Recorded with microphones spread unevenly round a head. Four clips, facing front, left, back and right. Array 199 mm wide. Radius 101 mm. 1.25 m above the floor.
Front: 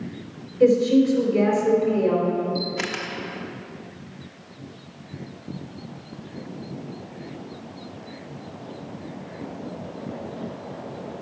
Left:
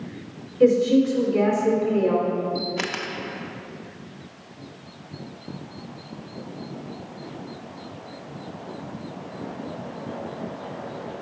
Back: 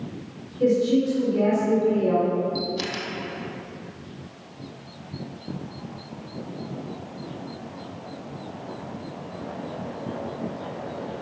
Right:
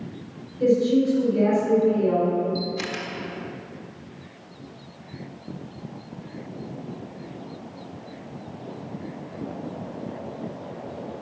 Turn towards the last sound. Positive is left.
turn(degrees=75)